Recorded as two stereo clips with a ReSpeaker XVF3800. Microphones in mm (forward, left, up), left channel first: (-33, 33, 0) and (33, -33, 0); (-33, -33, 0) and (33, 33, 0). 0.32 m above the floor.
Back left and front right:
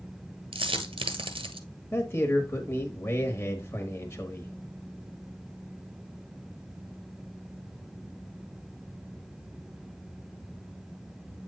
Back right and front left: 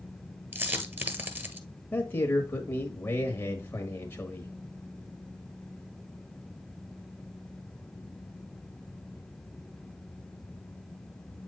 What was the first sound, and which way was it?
A dropped coin, 25° right.